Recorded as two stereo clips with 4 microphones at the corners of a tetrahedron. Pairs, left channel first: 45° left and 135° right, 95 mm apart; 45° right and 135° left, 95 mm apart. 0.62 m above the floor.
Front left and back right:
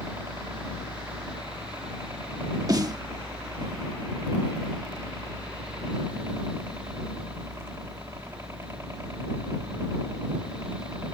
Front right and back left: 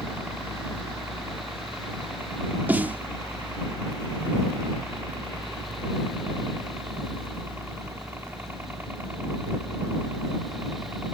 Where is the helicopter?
175° right.